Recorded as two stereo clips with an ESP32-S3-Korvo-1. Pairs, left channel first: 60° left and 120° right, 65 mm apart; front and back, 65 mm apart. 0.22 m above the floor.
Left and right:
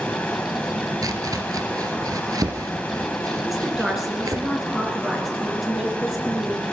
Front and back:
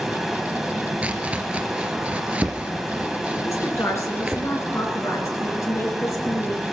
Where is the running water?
95° left, 1.4 m.